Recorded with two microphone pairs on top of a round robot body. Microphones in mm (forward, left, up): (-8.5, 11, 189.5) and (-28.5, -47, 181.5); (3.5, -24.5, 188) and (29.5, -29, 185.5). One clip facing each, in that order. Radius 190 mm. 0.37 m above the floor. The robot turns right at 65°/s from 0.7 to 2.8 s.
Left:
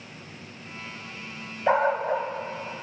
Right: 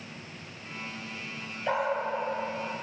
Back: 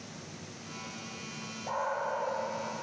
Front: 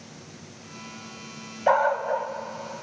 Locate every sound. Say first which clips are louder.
1.7 s a dog barking: left 6 dB, front 12 dB; 10° left, 1.0 m; by 2.3 s 50° left, 1.0 m